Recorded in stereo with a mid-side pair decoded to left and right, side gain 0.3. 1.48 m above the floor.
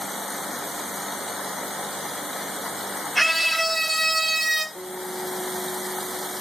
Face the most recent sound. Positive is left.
turn(degrees=10)